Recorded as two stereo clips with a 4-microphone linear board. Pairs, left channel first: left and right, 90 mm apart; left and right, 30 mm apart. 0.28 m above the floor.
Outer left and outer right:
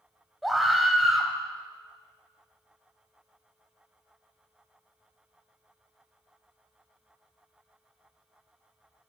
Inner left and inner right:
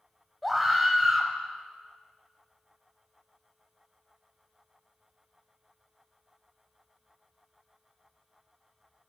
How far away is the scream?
About 1.5 m.